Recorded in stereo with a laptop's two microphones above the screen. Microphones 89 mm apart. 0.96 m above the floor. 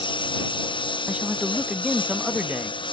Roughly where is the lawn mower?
Left.